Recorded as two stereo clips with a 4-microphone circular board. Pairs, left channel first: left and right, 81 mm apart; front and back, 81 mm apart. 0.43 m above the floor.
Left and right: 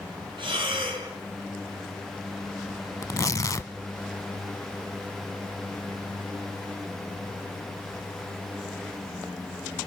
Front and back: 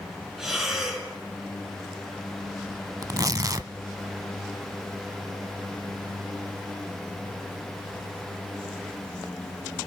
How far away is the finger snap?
I don't hear a finger snap.